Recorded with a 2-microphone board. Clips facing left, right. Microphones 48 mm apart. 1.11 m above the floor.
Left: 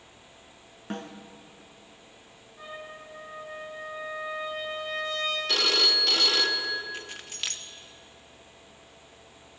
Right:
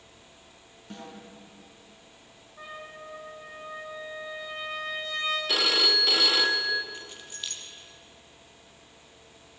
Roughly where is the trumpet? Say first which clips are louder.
Even; right.